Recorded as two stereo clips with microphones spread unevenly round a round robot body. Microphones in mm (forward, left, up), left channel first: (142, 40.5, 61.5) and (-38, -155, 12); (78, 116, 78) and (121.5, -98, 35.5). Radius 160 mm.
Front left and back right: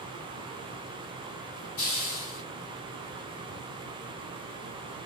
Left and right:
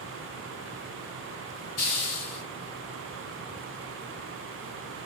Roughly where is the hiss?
Left.